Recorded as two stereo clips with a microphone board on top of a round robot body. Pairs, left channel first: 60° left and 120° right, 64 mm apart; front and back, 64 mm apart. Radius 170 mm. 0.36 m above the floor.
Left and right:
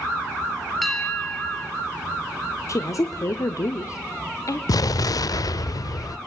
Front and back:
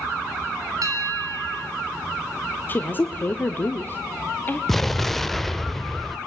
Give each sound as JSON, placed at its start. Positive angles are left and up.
{"t": 0.8, "sound": "a bell", "azimuth_deg": 150, "distance_m": 4.0}
{"t": 2.7, "sound": "a woman speaking", "azimuth_deg": 55, "distance_m": 1.5}
{"t": 4.7, "sound": "an explosion", "azimuth_deg": 85, "distance_m": 0.6}